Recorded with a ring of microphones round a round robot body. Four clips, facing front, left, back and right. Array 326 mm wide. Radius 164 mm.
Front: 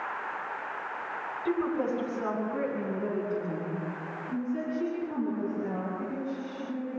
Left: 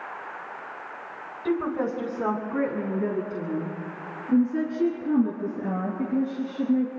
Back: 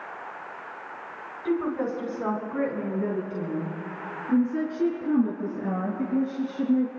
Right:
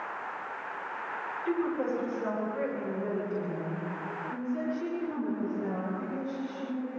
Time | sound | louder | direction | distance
1.4 | a woman speaking | left 4 dB, back 2 dB | 90° left | 3 m